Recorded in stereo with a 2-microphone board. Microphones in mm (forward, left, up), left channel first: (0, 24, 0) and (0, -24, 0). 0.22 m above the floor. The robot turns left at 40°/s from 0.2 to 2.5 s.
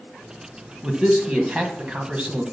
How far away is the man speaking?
About 1.4 m.